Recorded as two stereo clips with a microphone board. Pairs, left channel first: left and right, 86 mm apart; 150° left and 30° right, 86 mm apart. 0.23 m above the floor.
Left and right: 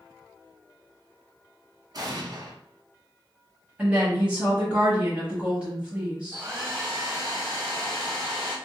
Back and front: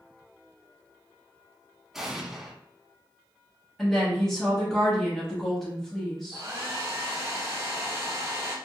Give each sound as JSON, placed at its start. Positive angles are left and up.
{"t": 1.9, "sound": "an explosion", "azimuth_deg": -115, "distance_m": 0.8}
{"t": 3.8, "sound": "a woman speaking", "azimuth_deg": -135, "distance_m": 1.0}
{"t": 6.3, "sound": "a hair dryer", "azimuth_deg": -45, "distance_m": 2.0}